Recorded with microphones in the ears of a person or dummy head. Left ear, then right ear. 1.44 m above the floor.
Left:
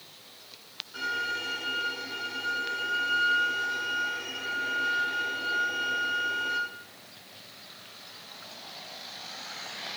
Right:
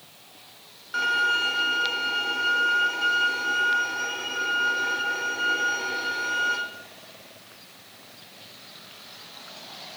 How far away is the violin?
About 1.1 m.